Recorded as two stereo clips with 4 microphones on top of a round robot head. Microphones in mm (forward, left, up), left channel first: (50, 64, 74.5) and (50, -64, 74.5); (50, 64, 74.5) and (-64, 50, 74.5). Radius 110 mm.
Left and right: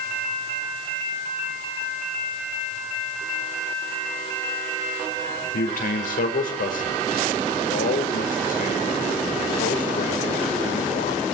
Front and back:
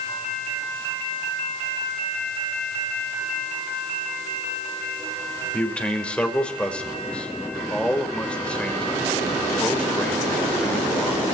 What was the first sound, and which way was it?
A man speaking, 90° left.